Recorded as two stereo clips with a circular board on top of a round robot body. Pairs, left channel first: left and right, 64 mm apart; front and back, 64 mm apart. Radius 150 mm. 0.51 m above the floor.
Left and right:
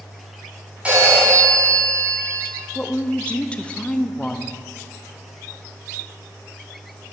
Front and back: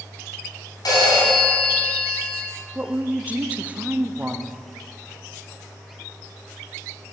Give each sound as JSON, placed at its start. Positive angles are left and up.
{"t": 0.8, "sound": "a phone ringing", "azimuth_deg": -20, "distance_m": 3.0}
{"t": 2.8, "sound": "a woman speaking", "azimuth_deg": 140, "distance_m": 0.7}